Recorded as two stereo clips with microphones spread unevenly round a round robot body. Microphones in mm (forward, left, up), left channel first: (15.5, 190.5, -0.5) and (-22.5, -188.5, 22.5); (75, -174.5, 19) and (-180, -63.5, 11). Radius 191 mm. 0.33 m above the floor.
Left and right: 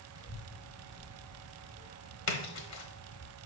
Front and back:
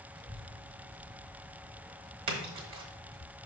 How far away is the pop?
No pop in this recording.